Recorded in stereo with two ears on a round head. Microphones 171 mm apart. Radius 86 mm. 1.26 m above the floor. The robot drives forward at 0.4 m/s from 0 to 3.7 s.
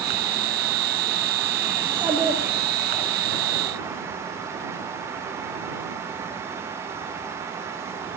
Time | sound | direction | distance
1.8 | a child speaking | 10° right (ahead or behind) | 0.9 m